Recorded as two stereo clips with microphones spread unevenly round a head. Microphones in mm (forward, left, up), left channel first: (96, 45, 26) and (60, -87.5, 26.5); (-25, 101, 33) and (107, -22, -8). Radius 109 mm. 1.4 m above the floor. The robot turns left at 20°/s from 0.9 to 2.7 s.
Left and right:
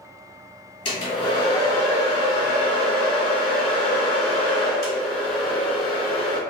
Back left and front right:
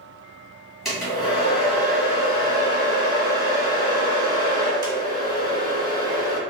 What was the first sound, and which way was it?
A hair dryer, 60° left.